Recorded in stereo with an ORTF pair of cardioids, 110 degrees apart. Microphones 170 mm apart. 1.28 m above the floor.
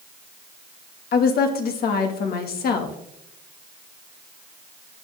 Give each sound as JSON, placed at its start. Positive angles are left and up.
{"t": 1.1, "sound": "a woman speaking", "azimuth_deg": 60, "distance_m": 2.0}